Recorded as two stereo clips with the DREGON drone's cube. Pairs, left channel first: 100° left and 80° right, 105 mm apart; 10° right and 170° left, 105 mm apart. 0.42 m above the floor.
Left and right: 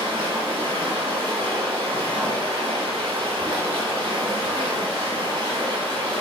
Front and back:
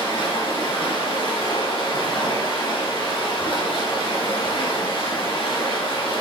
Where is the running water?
45° right, 2.5 m.